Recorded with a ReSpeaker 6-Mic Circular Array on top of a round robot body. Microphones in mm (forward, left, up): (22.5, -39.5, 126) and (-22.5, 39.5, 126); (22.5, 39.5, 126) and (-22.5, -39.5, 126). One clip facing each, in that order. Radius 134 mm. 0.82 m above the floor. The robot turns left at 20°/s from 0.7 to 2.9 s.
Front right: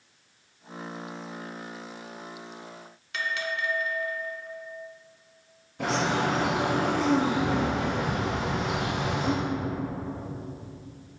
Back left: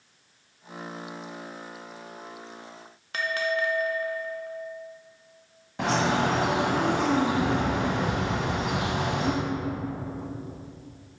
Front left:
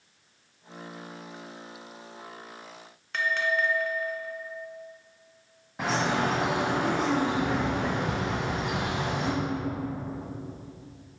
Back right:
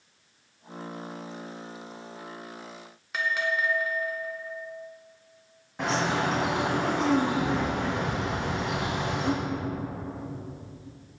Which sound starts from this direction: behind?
A bell, at 3.1 s.